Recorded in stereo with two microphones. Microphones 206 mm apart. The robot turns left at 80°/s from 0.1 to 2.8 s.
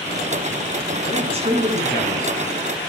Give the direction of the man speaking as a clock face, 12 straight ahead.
2 o'clock.